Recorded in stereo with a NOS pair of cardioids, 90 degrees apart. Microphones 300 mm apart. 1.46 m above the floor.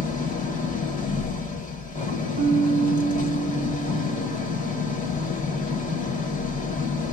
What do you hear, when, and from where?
0.0 s an engine running: 25° left, 1.3 m
2.4 s a piano: 40° right, 1.1 m